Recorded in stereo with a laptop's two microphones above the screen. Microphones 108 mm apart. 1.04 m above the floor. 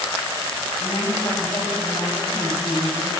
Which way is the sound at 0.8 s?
45° left (ahead or behind).